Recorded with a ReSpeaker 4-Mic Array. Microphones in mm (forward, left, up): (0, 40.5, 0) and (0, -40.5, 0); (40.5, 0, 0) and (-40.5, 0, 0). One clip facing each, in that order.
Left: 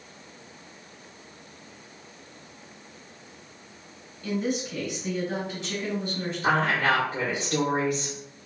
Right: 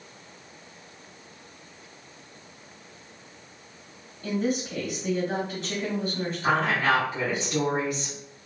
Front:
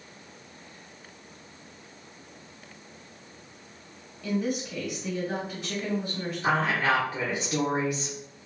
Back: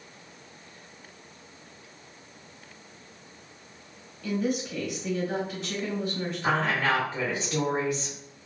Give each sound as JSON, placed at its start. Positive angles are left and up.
{"t": 4.2, "sound": "a woman speaking", "azimuth_deg": -75, "distance_m": 1.1}
{"t": 6.4, "sound": "a woman speaking", "azimuth_deg": 65, "distance_m": 0.9}